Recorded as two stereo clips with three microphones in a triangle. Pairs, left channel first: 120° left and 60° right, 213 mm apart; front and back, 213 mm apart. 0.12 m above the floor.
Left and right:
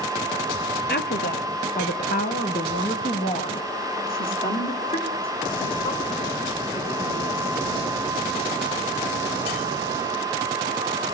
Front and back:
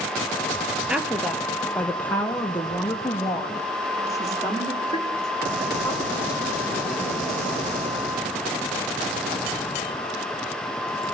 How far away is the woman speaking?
About 2 m.